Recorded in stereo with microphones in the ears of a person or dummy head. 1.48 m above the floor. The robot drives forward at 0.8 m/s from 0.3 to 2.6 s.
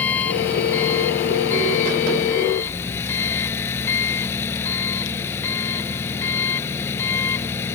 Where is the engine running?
10° left (ahead or behind).